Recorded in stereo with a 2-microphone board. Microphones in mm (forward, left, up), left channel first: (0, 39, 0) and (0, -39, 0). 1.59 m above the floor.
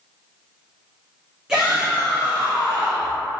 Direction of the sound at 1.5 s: 10° right (ahead or behind).